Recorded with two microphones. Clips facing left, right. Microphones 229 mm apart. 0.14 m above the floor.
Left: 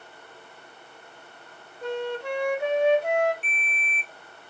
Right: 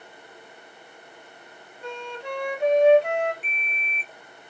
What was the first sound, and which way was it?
A flute, 5° left (ahead or behind).